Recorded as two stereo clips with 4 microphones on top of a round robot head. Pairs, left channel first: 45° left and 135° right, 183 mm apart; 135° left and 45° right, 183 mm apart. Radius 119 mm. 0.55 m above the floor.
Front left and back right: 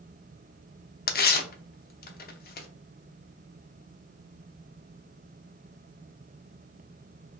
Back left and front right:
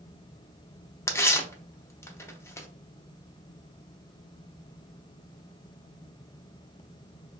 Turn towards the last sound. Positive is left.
turn(degrees=65)